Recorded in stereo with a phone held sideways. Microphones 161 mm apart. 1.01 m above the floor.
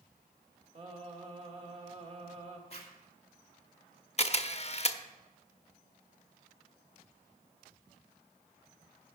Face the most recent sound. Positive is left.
turn(degrees=45)  # may be behind; listen again after turning